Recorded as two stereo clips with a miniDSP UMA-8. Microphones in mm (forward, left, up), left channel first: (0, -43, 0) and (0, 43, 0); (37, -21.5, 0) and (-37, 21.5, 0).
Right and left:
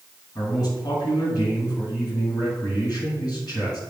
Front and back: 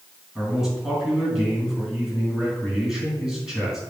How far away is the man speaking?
About 4 m.